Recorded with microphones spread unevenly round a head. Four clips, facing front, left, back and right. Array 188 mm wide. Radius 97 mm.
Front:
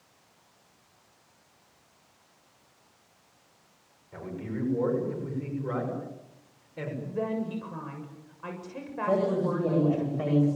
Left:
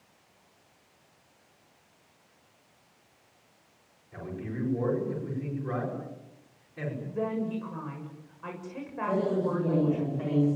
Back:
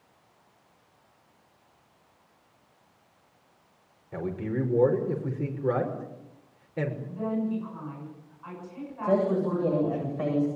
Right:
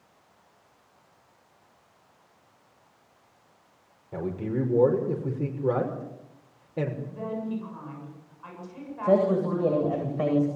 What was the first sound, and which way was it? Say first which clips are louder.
A man speaking: right 8 dB, back 5 dB; 110° right.